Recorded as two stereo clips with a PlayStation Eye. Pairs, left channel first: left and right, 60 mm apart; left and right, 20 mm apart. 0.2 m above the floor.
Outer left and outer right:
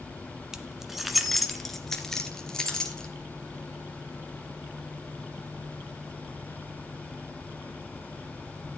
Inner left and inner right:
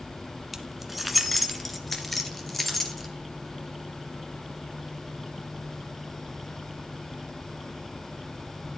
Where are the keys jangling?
10° right (ahead or behind), 1.2 m; by 3.1 s 10° left (ahead or behind), 2.5 m.